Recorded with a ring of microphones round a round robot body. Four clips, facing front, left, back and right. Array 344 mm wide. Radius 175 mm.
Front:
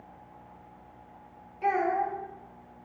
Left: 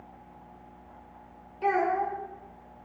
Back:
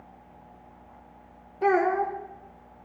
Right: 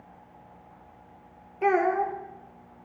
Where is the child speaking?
145° right, 0.7 m.